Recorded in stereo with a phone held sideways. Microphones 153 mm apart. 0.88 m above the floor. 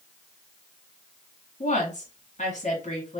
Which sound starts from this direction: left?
A woman speaking, at 1.6 s.